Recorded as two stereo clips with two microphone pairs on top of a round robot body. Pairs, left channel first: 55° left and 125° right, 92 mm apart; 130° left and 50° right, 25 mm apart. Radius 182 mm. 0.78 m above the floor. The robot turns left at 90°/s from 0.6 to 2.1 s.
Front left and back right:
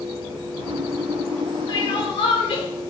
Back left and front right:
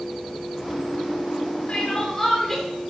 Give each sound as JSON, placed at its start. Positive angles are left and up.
{"t": 1.7, "sound": "crying", "azimuth_deg": 90, "distance_m": 5.0}